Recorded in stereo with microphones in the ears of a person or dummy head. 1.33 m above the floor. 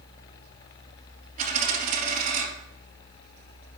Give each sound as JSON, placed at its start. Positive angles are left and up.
{"t": 1.4, "sound": "a dropped coin", "side_deg": -40, "distance_m": 4.0}